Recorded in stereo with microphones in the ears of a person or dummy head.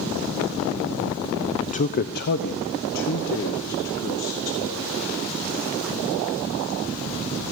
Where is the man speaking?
35° left (ahead or behind), 0.6 m; by 5.2 s 75° left (ahead or behind), 4.5 m.